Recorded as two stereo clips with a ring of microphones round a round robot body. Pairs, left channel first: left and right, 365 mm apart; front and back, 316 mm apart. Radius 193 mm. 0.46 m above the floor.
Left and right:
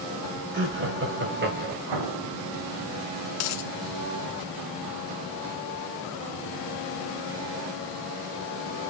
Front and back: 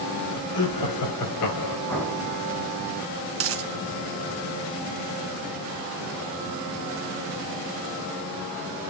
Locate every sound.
0.5 s laughter: 30° right, 3.5 m
1.9 s an explosion: 85° right, 3 m
3.4 s a dropped coin: 135° left, 0.7 m